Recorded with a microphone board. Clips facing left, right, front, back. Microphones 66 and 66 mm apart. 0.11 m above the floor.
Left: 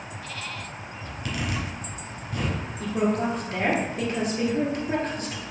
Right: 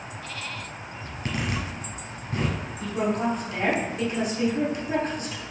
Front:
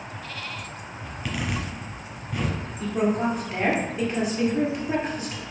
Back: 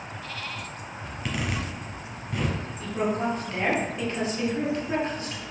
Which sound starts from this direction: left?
A woman speaking, at 2.8 s.